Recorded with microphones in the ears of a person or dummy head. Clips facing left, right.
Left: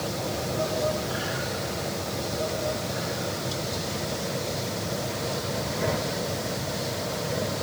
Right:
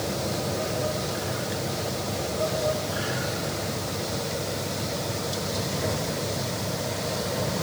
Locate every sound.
Only background noise.